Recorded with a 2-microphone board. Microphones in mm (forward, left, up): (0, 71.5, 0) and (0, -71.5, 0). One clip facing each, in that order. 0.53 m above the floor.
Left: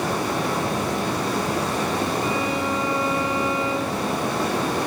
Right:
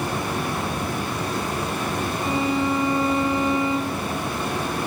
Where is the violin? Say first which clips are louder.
Right 1 dB; 25° right (ahead or behind), 2.5 m.